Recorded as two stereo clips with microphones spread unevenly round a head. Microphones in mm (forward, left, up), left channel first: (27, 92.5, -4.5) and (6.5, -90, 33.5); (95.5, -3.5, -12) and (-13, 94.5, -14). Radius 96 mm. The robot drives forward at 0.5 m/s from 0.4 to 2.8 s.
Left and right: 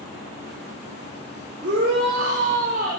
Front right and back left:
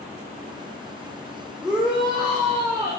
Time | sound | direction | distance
1.6 | a shout | 130° right | 3.5 m